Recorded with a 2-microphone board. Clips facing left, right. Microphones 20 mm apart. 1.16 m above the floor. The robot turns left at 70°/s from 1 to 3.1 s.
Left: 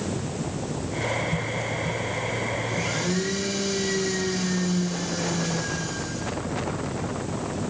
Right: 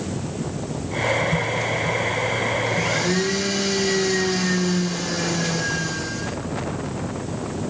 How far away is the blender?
About 2.5 m.